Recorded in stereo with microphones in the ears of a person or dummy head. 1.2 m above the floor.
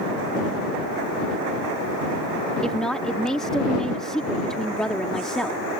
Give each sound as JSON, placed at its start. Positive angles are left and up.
{"t": 2.6, "sound": "a woman speaking", "side_deg": 0}